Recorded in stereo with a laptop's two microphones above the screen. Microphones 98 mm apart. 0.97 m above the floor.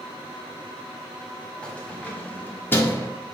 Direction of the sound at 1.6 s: 10° left (ahead or behind).